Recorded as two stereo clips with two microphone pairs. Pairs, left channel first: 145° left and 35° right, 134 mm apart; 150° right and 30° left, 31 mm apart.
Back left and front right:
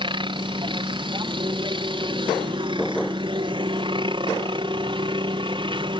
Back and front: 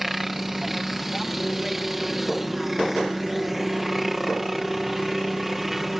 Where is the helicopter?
50° right.